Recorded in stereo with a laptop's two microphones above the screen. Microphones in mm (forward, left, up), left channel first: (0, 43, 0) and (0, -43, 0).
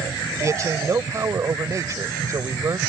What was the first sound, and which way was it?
A man speaking, 40° right (ahead or behind).